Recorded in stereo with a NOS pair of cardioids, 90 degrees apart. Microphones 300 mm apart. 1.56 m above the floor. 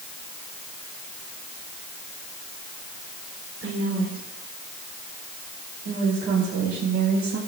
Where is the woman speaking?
50° right, 4.5 m; by 7.4 s 75° right, 6 m.